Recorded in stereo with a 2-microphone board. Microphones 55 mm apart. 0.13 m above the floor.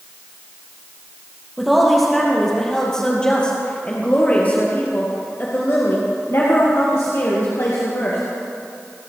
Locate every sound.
1.6 s a woman speaking: centre (ahead or behind), 3 m; by 8.2 s 70° left (ahead or behind), 3 m